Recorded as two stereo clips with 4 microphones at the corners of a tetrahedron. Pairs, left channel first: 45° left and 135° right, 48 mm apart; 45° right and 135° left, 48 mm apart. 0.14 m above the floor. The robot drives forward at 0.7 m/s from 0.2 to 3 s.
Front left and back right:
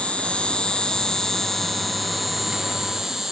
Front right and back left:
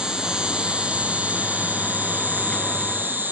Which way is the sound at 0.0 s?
80° left.